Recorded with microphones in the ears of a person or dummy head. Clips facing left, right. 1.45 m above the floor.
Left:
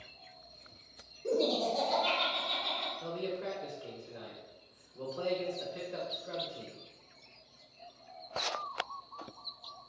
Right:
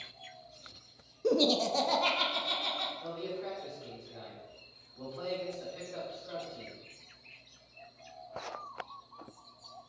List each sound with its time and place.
1.2 s laughter: 85° right, 0.5 m
3.0 s a man speaking: 40° left (ahead or behind), 1.4 m